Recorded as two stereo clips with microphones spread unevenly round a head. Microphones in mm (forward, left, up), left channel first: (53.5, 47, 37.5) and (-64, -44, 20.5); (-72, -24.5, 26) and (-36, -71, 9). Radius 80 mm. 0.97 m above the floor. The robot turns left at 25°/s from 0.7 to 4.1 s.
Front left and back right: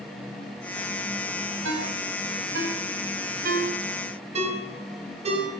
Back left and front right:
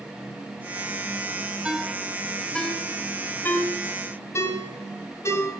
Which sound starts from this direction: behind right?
A ringtone, at 1.6 s.